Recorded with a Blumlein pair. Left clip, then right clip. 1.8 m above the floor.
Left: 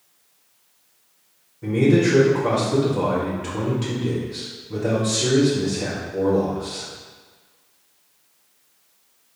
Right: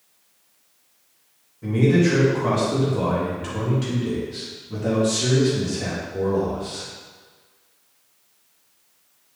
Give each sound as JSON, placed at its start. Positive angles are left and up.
{"t": 1.6, "sound": "a man speaking", "azimuth_deg": 0, "distance_m": 2.5}